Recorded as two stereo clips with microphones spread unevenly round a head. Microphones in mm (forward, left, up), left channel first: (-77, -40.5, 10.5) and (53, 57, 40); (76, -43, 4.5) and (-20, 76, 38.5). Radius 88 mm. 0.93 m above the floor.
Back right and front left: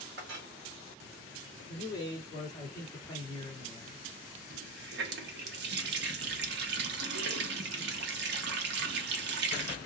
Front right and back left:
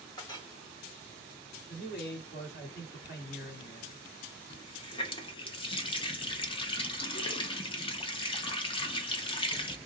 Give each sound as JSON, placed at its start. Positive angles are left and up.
{"t": 0.2, "sound": "a clink", "azimuth_deg": 10, "distance_m": 1.1}
{"t": 1.7, "sound": "a man speaking", "azimuth_deg": -70, "distance_m": 1.9}
{"t": 4.5, "sound": "a running tap", "azimuth_deg": 5, "distance_m": 0.7}